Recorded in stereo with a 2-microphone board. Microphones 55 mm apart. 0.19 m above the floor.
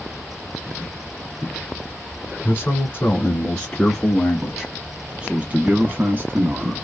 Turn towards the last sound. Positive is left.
turn(degrees=-45)  # may be behind; listen again after turning